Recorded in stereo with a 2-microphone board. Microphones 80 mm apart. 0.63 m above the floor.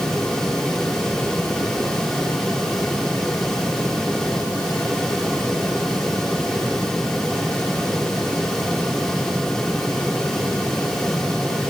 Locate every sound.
Only background noise.